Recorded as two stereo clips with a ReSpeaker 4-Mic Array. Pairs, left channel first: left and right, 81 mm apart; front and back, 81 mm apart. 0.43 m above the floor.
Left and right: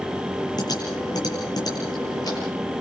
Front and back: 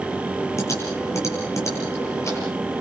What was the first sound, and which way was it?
Typing on a keyboard, 50° left.